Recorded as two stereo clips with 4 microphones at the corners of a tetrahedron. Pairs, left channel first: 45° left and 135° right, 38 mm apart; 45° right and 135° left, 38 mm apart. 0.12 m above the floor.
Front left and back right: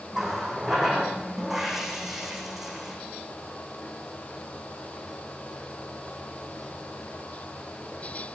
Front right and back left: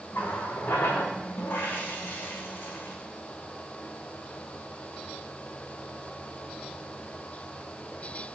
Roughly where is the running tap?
Ahead right.